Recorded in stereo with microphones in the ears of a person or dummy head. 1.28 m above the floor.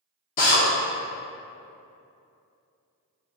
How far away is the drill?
About 0.6 m.